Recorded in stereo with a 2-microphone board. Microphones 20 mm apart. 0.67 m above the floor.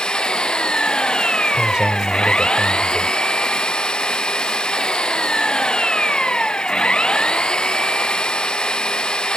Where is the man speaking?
55° right (ahead or behind).